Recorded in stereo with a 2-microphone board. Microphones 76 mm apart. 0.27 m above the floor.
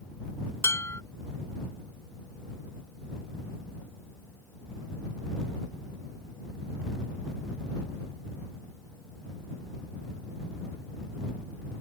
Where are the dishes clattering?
35° left (ahead or behind).